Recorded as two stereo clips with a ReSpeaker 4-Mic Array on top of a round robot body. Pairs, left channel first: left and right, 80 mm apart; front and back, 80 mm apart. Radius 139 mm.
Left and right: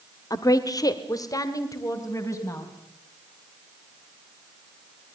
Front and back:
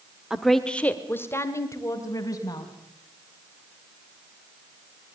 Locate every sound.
0.3 s a woman speaking: 100° left, 1.5 m; by 2.7 s 40° left, 4 m